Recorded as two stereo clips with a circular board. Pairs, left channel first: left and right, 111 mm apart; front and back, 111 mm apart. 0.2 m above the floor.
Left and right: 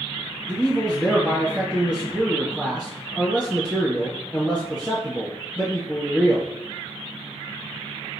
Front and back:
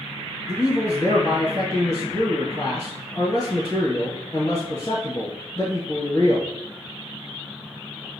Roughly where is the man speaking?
Ahead.